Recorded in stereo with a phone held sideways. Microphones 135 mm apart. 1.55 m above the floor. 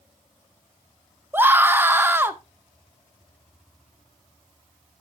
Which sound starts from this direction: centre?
A scream, at 1.3 s.